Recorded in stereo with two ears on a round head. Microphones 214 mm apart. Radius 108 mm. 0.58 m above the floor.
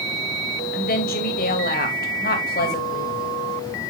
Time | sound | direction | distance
0.7 | a woman speaking | 40° left (ahead or behind) | 3 m